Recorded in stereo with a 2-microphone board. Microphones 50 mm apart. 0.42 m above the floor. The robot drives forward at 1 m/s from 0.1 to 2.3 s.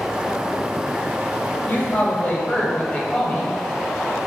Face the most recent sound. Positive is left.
turn(degrees=30)  # may be behind; listen again after turning